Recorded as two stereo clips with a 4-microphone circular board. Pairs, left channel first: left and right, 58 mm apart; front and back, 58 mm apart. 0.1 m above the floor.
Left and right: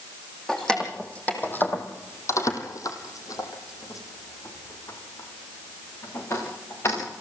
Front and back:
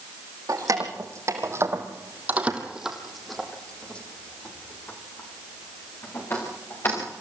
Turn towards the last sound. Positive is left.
turn(degrees=45)